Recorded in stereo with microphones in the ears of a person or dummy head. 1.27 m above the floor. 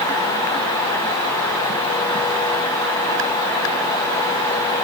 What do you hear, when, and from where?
Only background noise.